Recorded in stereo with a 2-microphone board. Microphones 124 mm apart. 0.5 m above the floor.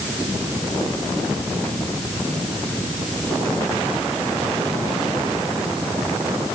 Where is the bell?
I don't hear a bell.